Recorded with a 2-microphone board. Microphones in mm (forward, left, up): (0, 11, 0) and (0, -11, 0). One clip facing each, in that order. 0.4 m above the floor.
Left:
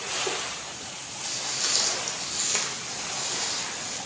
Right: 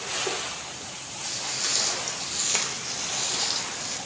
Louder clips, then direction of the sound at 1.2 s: Even; 10° left (ahead or behind).